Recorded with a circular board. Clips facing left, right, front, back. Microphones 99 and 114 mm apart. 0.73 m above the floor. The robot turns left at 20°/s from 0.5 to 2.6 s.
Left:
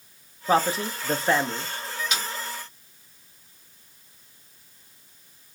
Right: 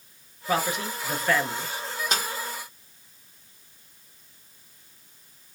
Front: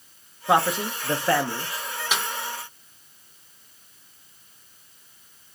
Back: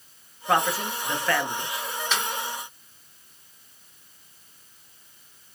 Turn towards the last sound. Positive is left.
turn(degrees=-80)